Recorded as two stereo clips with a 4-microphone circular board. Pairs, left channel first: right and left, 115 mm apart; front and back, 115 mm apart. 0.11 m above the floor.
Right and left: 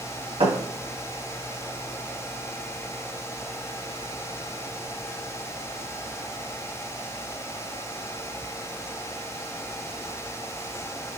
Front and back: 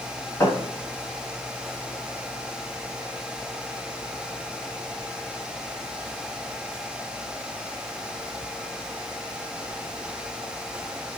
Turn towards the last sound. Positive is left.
turn(degrees=60)